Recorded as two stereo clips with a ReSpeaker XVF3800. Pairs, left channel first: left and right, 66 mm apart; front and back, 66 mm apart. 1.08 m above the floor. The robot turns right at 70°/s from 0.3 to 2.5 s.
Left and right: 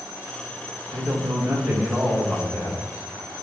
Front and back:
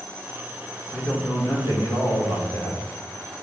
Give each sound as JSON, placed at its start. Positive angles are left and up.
{"t": 0.9, "sound": "a man speaking", "azimuth_deg": -75, "distance_m": 2.0}